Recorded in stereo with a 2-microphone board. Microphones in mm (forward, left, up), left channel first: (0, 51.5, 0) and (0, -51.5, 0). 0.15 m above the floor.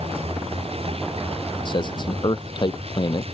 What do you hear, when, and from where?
0.0 s a vehicle: 65° right (ahead or behind)
1.6 s a man speaking: 45° left (ahead or behind)